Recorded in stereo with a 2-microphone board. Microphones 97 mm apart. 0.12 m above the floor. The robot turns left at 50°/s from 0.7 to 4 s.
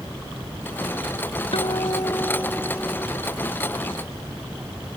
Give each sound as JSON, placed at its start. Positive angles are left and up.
{"t": 1.5, "sound": "a guitar", "azimuth_deg": 70}